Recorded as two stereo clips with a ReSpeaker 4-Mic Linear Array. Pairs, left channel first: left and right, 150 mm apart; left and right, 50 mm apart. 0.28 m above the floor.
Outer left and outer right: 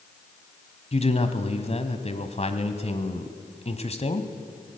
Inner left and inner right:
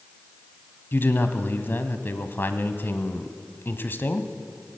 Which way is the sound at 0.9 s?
45° left (ahead or behind).